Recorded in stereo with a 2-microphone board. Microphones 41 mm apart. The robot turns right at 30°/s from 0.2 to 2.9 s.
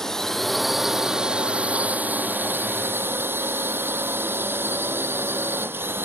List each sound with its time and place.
0.0 s a drone: 170° left; by 6.0 s 110° right